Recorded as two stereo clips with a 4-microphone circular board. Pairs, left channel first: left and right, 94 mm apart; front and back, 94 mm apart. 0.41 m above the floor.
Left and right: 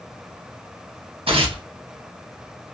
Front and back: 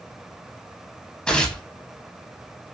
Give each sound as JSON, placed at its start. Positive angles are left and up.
{"t": 1.3, "sound": "tearing paper", "azimuth_deg": -80, "distance_m": 0.6}